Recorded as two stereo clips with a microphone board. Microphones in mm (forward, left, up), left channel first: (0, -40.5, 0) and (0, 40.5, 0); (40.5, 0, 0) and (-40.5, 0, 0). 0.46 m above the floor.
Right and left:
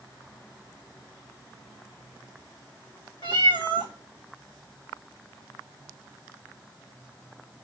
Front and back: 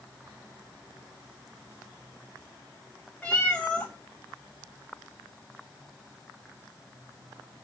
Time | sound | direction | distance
3.2 | a cat meowing | 80° right | 4 m